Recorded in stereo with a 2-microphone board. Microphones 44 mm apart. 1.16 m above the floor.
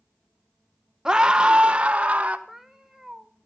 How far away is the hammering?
No hammering in this recording.